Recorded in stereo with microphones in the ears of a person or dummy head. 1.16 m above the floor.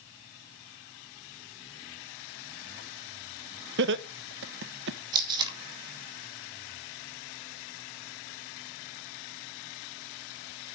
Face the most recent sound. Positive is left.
turn(degrees=-25)  # may be behind; listen again after turning